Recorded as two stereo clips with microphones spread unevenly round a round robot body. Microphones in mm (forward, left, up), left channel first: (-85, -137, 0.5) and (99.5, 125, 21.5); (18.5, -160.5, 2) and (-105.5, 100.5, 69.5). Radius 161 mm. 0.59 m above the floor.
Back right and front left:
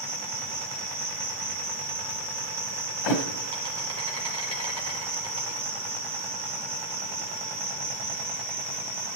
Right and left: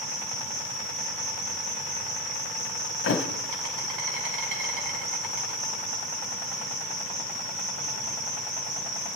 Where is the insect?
130° left, 3 m.